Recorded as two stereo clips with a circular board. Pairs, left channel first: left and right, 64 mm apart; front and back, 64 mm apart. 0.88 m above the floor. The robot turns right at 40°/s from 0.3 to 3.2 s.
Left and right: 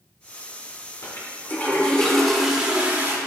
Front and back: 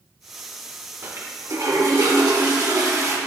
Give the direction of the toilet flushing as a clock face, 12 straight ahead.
8 o'clock.